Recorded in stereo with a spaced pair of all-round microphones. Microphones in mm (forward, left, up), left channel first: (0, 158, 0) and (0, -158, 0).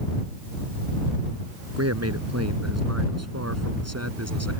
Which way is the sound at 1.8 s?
50° right (ahead or behind).